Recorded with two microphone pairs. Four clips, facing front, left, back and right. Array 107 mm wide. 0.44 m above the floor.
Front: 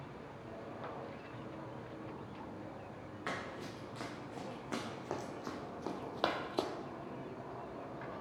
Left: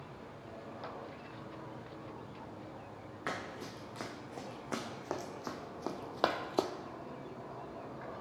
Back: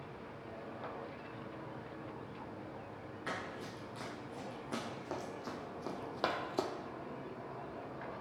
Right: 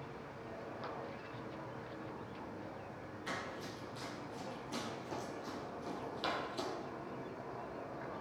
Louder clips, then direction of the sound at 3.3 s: Left 3 dB, even; 70° left.